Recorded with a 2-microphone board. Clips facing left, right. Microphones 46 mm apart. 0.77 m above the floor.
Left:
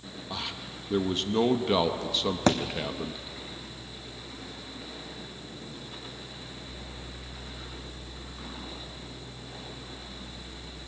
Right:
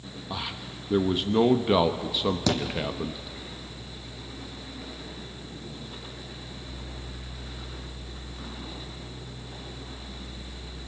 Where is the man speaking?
10° right (ahead or behind), 0.9 m.